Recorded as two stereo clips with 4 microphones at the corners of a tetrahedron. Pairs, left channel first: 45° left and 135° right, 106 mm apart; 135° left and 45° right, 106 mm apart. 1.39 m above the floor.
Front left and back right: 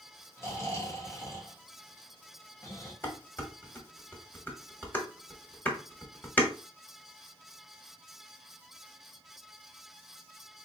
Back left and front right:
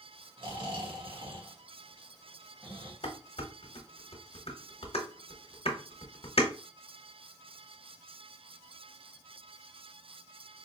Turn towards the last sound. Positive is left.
turn(degrees=115)